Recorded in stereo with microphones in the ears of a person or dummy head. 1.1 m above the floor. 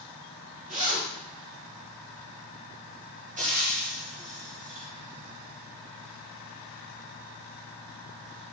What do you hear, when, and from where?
0.7 s a zipper: 35° right (ahead or behind), 3 m
3.4 s frying: 35° right (ahead or behind), 1.0 m